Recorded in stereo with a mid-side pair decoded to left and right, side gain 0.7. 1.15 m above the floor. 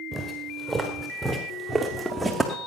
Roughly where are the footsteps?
Ahead.